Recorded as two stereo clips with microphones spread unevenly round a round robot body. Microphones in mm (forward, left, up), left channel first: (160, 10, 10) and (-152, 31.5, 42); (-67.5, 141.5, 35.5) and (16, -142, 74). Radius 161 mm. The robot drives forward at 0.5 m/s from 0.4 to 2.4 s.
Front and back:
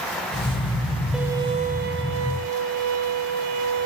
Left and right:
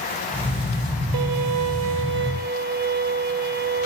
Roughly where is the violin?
Right.